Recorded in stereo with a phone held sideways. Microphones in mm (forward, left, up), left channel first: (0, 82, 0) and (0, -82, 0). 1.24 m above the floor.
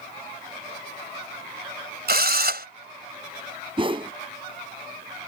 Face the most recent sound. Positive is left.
turn(degrees=-30)  # may be behind; listen again after turning